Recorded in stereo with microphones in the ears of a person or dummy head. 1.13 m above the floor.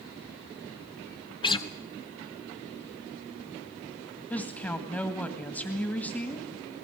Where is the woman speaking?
10° left (ahead or behind), 1.9 m.